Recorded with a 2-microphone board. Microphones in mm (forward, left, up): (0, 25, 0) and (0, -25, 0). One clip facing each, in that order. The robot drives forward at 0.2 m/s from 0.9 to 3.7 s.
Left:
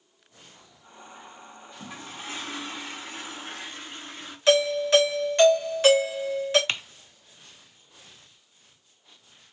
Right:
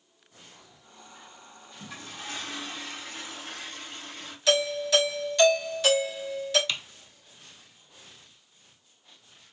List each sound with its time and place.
1.8 s a toilet flushing: 25° left (ahead or behind), 1.5 m
4.5 s a doorbell: 40° left (ahead or behind), 2.5 m
6.7 s typing on a keyboard: 45° left (ahead or behind), 0.6 m